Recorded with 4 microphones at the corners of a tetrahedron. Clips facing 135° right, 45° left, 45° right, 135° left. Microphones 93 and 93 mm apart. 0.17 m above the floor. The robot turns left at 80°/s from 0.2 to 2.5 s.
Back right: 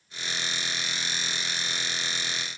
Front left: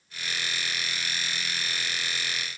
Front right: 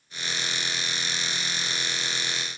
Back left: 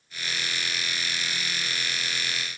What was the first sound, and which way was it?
Only background noise.